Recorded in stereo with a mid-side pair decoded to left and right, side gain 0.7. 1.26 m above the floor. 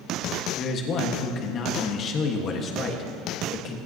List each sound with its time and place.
0.6 s a man speaking: 40° left, 1.6 m